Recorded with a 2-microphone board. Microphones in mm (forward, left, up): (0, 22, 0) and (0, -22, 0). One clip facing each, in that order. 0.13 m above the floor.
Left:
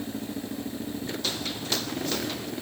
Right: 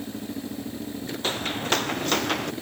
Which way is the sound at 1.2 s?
30° right (ahead or behind).